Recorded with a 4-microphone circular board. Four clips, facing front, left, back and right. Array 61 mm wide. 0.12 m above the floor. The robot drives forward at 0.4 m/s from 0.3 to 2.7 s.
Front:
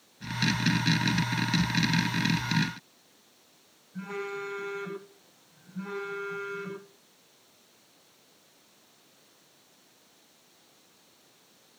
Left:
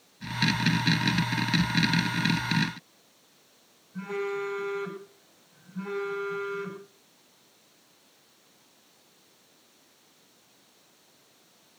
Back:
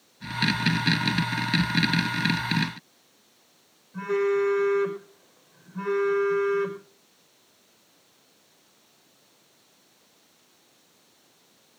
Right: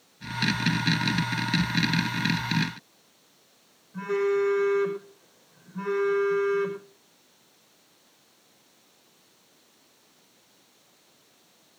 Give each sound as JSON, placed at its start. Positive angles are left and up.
{"t": 3.9, "sound": "a phone buzzing", "azimuth_deg": -140, "distance_m": 4.5}